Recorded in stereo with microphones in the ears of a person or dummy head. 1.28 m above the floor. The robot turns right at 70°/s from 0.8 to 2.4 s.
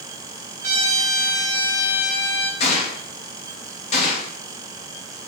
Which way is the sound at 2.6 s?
35° left (ahead or behind).